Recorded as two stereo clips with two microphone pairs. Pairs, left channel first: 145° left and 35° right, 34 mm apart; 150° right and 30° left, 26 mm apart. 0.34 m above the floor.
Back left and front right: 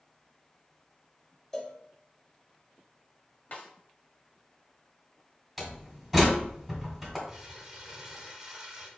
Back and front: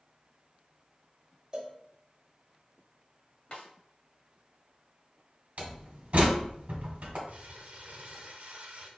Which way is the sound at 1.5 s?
70° left.